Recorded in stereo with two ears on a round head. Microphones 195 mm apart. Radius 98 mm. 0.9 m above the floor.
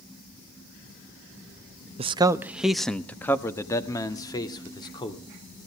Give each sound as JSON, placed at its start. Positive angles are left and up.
{"t": 2.0, "sound": "a man speaking", "side_deg": -25, "distance_m": 0.5}